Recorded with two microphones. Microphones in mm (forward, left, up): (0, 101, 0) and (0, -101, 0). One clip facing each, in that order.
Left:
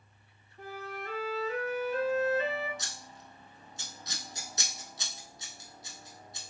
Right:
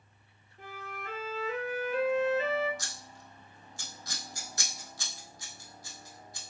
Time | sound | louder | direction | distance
0.6 | a flute | left 4 dB | 35° left (ahead or behind) | 1.3 m
2.8 | scissors | even | 20° left (ahead or behind) | 0.6 m